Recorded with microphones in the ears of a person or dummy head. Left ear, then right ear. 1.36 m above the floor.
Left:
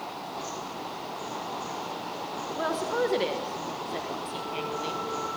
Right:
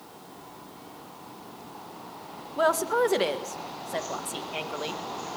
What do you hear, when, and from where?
2.6 s a woman speaking: 45° right (ahead or behind), 2 m